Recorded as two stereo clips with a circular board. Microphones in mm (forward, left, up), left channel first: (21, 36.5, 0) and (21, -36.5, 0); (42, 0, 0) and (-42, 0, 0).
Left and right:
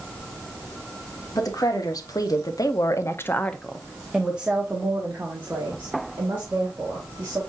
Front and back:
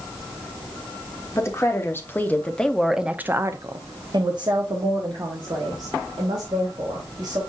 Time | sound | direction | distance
1.4 | a woman speaking | 55° left | 1.3 m